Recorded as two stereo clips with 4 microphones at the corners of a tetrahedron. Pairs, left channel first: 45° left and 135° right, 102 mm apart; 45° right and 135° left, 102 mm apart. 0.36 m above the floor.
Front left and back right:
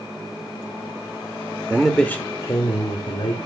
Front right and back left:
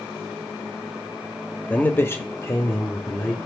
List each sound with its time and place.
1.7 s a man speaking: 90° right, 0.8 m; by 3.4 s 15° left, 2 m